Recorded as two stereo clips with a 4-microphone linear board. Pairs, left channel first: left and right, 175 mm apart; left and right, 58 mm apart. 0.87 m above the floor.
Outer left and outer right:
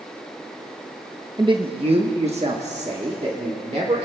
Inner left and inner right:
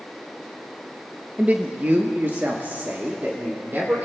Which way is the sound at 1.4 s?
25° right (ahead or behind).